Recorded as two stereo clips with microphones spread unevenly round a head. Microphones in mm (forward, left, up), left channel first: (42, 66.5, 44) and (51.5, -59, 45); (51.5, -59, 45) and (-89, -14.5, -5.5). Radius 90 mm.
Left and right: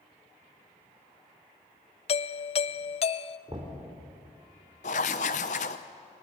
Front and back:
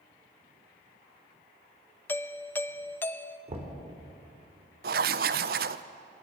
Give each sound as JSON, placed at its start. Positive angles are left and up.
{"t": 2.1, "sound": "a doorbell", "azimuth_deg": 70, "distance_m": 0.5}
{"t": 3.5, "sound": "knocking", "azimuth_deg": -150, "distance_m": 4.0}
{"t": 4.8, "sound": "writing", "azimuth_deg": 120, "distance_m": 0.6}